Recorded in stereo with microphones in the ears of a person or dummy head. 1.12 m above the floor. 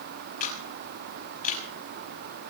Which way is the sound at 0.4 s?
45° left (ahead or behind).